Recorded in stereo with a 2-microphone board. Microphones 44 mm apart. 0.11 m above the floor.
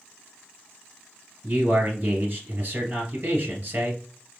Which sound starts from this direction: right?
A man speaking, at 1.4 s.